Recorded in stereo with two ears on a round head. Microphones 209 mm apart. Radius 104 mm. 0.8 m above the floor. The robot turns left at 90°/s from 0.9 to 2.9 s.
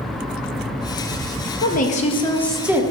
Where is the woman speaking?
85° left, 0.7 m; by 2.8 s 25° right, 0.7 m.